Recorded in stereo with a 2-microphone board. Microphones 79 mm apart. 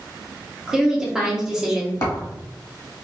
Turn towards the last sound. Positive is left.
turn(degrees=45)  # may be behind; listen again after turning